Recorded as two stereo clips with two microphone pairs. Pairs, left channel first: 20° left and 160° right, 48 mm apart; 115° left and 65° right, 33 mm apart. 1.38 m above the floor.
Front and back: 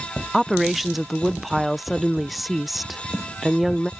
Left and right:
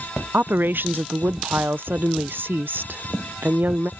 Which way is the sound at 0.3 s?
70° right.